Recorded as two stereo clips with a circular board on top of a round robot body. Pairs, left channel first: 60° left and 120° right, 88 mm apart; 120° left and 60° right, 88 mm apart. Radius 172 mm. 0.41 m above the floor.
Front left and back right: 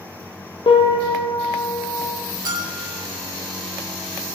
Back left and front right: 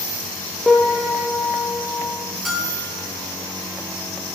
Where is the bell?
155° right, 8.5 m.